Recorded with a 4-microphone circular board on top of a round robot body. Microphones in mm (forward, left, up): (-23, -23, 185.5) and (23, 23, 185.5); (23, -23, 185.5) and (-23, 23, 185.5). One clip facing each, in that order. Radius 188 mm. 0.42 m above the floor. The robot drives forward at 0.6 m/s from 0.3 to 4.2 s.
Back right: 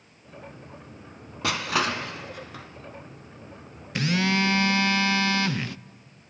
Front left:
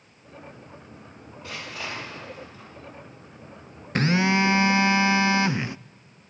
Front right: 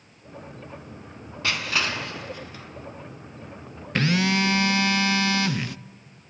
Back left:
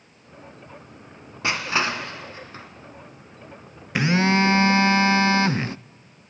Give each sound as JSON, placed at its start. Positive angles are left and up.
{"t": 1.4, "sound": "crushing", "azimuth_deg": -155, "distance_m": 1.0}
{"t": 4.0, "sound": "a phone buzzing", "azimuth_deg": 60, "distance_m": 0.5}